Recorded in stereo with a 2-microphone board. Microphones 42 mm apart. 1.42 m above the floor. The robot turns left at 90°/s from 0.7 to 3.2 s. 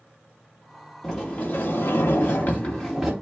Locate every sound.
1.0 s a sliding door: 175° left, 2.5 m; by 3.1 s 15° right, 2.5 m